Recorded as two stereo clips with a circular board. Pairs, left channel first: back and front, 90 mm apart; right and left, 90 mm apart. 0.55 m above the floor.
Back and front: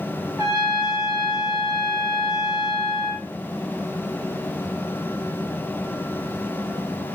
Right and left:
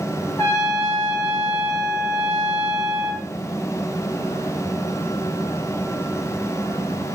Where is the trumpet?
45° right, 2.5 m.